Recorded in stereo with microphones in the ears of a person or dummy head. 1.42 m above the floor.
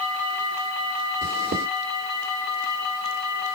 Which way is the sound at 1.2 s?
55° right (ahead or behind).